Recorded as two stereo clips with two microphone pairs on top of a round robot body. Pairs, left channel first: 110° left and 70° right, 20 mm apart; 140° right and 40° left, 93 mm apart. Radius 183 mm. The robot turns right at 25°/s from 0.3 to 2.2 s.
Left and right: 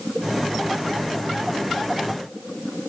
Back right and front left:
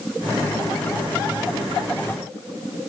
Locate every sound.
Only background noise.